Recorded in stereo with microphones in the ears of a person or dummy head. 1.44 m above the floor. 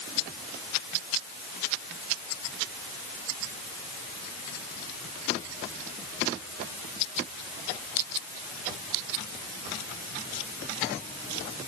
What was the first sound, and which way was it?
Only background noise.